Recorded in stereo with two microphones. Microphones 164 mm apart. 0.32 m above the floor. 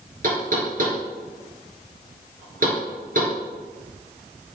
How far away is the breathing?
No breathing in this recording.